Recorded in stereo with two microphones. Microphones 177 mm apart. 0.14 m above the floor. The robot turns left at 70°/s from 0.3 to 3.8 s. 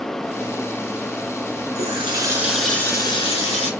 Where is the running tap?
120° right, 1.3 m; by 3.7 s 105° left, 1.3 m.